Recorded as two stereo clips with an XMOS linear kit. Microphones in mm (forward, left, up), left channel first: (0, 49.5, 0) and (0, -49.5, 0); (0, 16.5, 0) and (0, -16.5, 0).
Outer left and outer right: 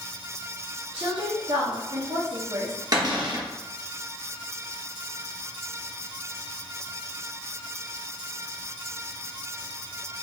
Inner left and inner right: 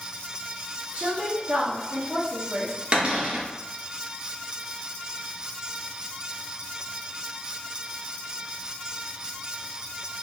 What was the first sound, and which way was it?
A woman speaking, 50° right (ahead or behind).